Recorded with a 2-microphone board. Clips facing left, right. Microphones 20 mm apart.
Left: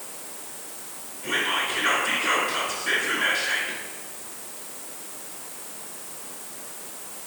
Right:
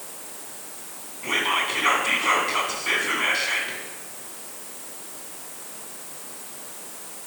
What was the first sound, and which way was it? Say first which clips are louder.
Whispering: right 2 dB; 35° right (ahead or behind).